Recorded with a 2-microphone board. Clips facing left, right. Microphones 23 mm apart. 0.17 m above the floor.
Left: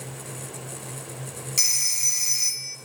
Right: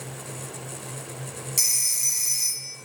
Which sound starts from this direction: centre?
A phone ringing, at 1.6 s.